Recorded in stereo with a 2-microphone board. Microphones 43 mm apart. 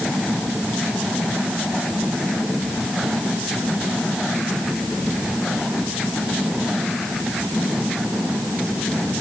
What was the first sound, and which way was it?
Only background noise.